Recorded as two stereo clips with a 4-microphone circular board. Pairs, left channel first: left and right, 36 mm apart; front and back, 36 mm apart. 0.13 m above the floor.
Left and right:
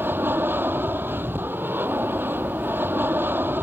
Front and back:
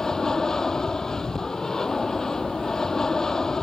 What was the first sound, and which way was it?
An aircraft, 75° right.